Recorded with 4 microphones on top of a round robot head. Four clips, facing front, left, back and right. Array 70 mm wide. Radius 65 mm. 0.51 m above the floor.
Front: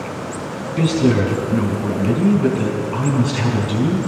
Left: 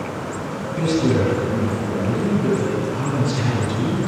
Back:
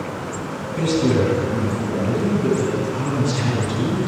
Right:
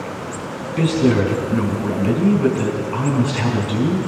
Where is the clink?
No clink in this recording.